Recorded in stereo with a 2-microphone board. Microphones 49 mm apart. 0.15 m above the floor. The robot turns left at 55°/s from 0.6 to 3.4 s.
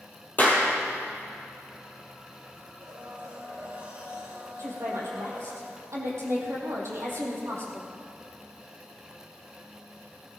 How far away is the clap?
About 3 m.